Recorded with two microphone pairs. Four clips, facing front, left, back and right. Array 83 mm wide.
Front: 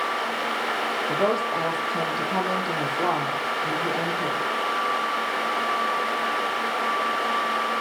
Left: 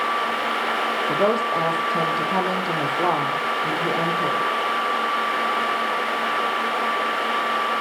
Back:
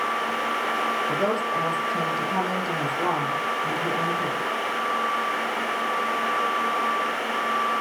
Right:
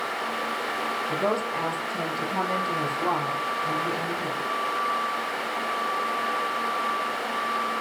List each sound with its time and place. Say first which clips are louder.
1.1 s a woman speaking: left 6 dB, front 1 dB; 70° left, 7 m